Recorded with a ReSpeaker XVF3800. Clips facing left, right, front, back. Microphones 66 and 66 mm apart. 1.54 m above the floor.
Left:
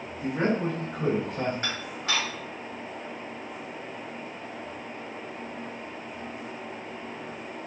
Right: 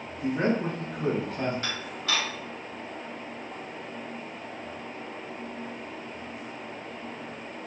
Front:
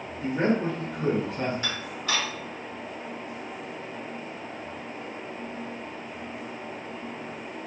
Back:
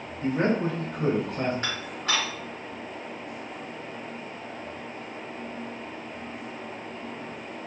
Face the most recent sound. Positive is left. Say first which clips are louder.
# left 1 dB, back 1 dB
turn(degrees=140)